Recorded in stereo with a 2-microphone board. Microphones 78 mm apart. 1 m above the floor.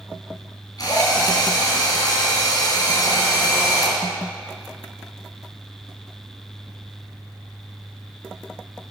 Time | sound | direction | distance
0.8 | a drill | 55° left (ahead or behind) | 4 m